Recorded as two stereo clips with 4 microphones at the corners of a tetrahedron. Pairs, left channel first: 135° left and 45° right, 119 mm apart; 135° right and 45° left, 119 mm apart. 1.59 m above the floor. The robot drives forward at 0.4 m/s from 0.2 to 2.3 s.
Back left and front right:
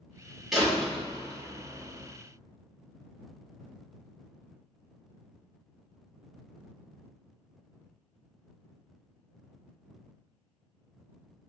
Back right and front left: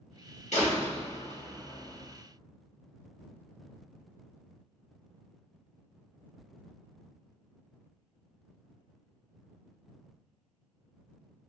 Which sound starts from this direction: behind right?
A door slam, at 0.5 s.